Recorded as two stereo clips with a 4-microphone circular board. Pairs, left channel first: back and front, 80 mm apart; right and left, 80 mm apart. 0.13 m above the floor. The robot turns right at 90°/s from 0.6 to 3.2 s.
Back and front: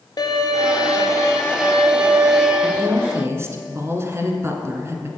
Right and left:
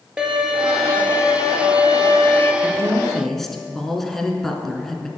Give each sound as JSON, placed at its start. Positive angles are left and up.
{"t": 0.2, "sound": "a violin", "azimuth_deg": 165, "distance_m": 1.7}
{"t": 2.6, "sound": "a woman speaking", "azimuth_deg": -60, "distance_m": 1.5}